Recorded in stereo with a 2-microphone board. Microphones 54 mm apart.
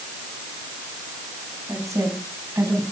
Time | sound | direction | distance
1.7 | a woman speaking | 75° right (ahead or behind) | 6.5 m